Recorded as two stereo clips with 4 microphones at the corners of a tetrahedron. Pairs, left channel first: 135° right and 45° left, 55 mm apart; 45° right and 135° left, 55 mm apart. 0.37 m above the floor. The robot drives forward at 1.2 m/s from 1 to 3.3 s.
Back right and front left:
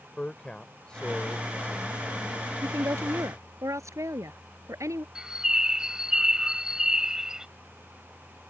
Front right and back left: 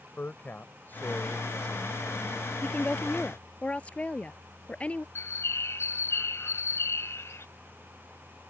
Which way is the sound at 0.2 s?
70° right.